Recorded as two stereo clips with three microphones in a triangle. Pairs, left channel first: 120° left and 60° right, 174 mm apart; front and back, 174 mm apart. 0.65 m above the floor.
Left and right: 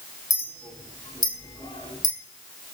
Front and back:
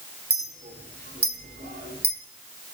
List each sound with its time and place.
0.3 s a clink: 170° right, 1.4 m